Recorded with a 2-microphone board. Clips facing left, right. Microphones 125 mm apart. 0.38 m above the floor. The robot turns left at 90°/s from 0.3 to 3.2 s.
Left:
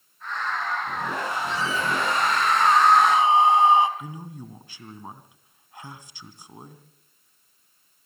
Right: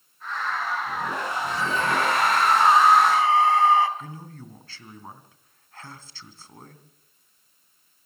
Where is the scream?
45° right, 3.5 m; by 3.9 s 160° left, 3.5 m.